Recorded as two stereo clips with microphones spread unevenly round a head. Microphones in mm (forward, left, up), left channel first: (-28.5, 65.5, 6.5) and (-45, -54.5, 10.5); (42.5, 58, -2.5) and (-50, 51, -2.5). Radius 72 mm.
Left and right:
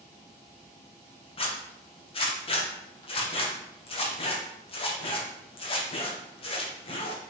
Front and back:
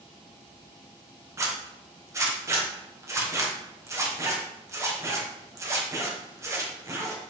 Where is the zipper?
125° left, 1.5 m.